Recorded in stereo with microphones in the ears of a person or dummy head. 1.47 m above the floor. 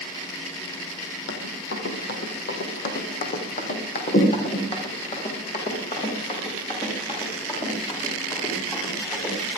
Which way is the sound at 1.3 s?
60° left (ahead or behind).